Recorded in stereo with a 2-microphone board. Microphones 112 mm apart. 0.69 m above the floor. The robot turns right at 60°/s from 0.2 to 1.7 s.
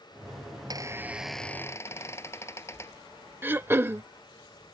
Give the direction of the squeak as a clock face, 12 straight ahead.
1 o'clock.